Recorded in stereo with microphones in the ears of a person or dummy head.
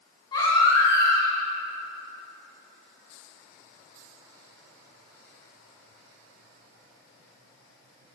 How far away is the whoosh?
No whoosh in this recording.